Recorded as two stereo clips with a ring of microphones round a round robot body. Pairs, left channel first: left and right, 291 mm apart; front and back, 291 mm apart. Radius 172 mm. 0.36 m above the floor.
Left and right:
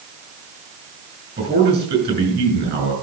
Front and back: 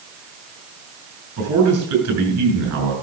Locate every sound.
1.4 s a man speaking: 145° right, 6.5 m